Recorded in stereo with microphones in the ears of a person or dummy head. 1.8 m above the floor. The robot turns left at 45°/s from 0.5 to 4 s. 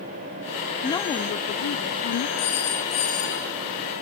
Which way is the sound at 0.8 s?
165° left.